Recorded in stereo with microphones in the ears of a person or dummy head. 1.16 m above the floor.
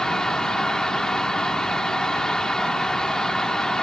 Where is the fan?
5° left (ahead or behind).